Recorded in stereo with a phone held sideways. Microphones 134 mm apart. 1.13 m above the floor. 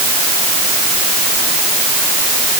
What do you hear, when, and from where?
Only background noise.